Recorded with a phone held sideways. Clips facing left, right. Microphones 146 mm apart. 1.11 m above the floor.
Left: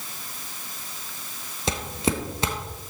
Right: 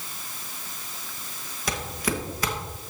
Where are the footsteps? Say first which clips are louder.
Left 3 dB; 25° left (ahead or behind), 1.2 m.